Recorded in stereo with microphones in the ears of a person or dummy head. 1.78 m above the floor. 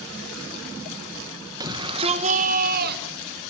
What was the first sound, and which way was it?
A shout, 20° right (ahead or behind).